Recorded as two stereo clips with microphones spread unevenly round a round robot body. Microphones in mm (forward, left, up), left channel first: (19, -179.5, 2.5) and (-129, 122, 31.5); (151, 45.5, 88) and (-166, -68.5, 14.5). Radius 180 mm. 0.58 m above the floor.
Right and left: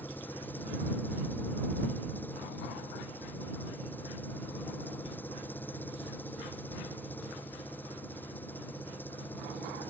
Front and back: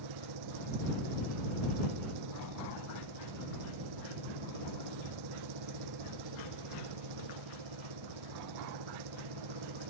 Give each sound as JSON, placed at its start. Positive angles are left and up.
{"t": 0.0, "sound": "an engine running", "azimuth_deg": -150}